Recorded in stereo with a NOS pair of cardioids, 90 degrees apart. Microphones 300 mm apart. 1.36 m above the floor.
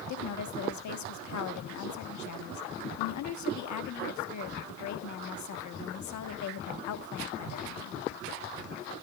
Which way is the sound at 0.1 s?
70° left.